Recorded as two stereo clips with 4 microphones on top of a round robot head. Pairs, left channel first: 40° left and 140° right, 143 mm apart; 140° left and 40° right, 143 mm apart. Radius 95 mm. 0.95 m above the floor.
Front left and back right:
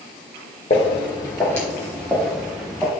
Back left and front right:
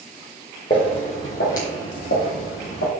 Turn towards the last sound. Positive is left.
turn(degrees=130)